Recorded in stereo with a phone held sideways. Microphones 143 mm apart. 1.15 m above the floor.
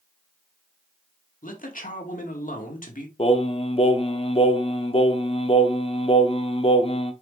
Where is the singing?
40° left (ahead or behind), 0.9 m.